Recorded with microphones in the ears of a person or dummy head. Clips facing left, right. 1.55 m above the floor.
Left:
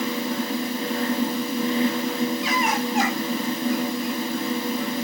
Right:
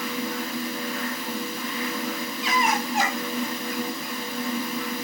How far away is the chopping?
I don't hear chopping.